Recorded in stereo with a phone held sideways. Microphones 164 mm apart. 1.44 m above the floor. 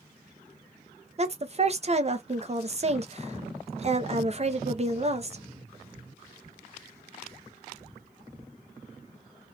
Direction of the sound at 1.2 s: 40° right (ahead or behind).